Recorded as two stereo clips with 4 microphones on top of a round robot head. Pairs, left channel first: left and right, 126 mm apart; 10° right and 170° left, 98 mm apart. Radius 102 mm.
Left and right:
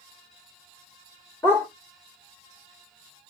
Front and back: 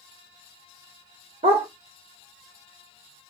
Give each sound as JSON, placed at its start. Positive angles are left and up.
{"t": 1.4, "sound": "a dog barking", "azimuth_deg": 160, "distance_m": 1.3}